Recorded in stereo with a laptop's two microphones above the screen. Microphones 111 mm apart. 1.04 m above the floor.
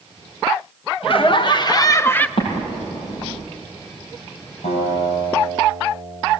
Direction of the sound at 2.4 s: 55° left (ahead or behind).